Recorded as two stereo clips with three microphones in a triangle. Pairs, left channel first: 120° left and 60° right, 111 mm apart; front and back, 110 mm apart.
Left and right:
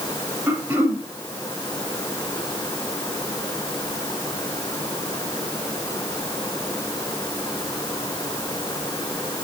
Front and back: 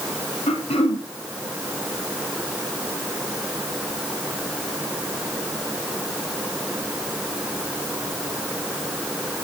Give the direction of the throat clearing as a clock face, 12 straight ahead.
12 o'clock.